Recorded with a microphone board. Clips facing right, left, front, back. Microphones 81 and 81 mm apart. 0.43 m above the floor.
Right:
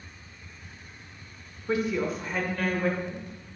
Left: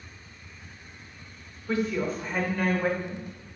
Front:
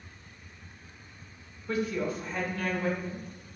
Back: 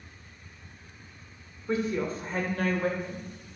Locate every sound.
1.7 s a woman speaking: 140° right, 1.3 m; by 3.3 s 155° left, 2 m